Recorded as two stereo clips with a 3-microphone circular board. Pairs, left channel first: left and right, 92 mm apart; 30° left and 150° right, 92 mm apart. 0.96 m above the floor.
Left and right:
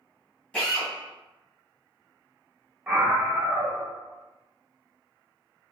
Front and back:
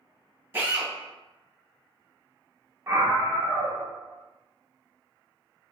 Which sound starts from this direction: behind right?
A scream, at 2.9 s.